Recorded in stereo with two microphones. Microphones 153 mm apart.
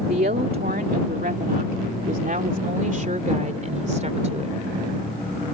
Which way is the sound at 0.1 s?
80° right.